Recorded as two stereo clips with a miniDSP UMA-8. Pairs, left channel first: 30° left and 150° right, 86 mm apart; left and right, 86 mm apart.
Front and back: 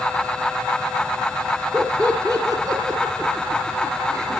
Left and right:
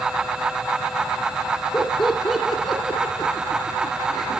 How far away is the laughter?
About 2.5 m.